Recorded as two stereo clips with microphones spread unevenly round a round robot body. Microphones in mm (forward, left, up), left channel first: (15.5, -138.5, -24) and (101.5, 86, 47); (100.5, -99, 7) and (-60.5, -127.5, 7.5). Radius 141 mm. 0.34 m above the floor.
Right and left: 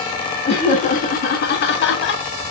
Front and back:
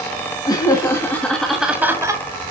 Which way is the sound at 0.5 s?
55° right.